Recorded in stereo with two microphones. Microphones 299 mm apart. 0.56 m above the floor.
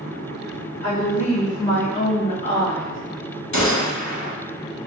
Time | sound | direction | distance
0.8 | a woman speaking | 50° left (ahead or behind) | 1.6 m
3.5 | a gunshot | 65° left (ahead or behind) | 0.9 m